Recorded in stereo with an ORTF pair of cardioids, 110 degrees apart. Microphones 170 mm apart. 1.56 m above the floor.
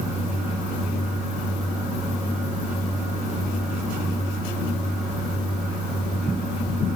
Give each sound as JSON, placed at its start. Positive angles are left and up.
{"t": 0.0, "sound": "a fan", "azimuth_deg": -50, "distance_m": 5.5}